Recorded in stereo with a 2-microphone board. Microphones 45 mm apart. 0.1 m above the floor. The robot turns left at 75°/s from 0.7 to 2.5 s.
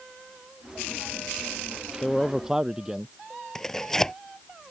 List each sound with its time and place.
2.0 s a man speaking: 20° left; by 3.1 s 15° right
3.5 s tearing paper: 10° left (ahead or behind)